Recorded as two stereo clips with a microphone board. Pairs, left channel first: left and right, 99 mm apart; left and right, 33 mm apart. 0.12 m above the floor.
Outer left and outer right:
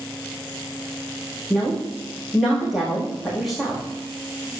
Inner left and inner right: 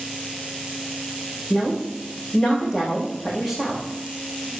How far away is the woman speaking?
About 6 m.